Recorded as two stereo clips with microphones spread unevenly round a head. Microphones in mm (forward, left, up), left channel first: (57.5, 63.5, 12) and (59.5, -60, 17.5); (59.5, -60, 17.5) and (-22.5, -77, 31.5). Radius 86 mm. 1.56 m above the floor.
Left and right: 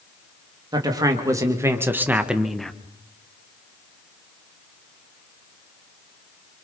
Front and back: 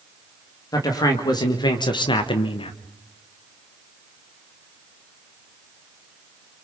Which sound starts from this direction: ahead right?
A man speaking, at 0.7 s.